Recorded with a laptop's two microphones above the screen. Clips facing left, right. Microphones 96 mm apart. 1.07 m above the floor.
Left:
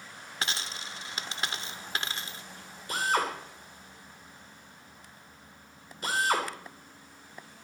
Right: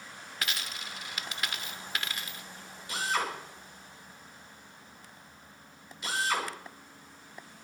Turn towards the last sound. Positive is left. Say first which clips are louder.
# left 3 dB
turn(degrees=45)  # may be behind; listen again after turning